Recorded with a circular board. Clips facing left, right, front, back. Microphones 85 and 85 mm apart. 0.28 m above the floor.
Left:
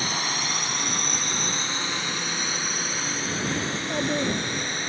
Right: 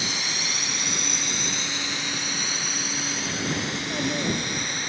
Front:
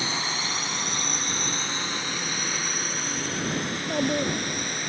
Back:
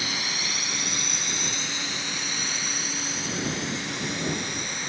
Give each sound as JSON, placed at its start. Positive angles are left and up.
{"t": 0.0, "sound": "a drone", "azimuth_deg": 50}
{"t": 3.7, "sound": "a child speaking", "azimuth_deg": 20}